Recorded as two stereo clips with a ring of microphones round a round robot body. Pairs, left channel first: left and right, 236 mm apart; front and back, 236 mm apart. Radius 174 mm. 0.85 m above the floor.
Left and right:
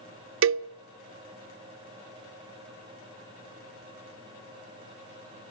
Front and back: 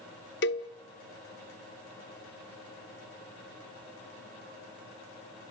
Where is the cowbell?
60° right, 0.5 m.